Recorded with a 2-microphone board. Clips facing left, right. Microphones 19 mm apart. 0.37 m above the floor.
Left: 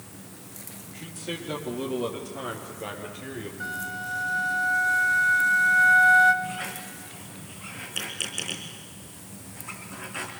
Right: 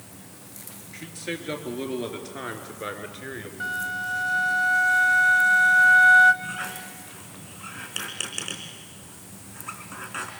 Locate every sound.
0.9 s a man speaking: 55° right (ahead or behind), 5 m; by 3.5 s 35° right (ahead or behind), 4.5 m
3.6 s a flute: 25° right (ahead or behind), 1.3 m
6.4 s a squeak: 30° right (ahead or behind), 4 m